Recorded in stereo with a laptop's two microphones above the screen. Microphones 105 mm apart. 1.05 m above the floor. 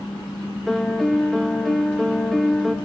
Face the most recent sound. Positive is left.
turn(degrees=0)  # may be behind; listen again after turning